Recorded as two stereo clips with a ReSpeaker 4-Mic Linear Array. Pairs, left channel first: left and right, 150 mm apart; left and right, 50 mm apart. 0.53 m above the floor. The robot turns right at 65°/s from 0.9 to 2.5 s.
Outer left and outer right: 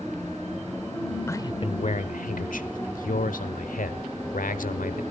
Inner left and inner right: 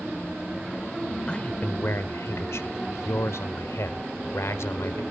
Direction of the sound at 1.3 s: 20° left.